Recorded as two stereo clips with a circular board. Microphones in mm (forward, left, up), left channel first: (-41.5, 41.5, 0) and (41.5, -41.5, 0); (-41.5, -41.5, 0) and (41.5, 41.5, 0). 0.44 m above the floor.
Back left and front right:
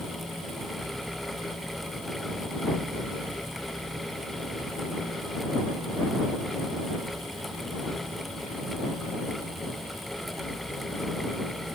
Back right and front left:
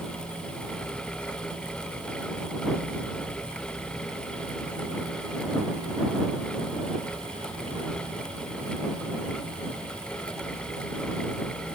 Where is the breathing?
No breathing in this recording.